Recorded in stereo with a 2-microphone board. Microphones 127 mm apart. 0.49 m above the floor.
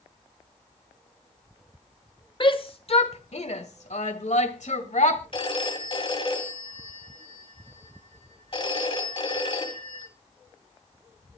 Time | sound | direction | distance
2.4 | a shout | 40° left (ahead or behind) | 1.3 m
5.3 | a phone ringing | 45° left (ahead or behind) | 2.5 m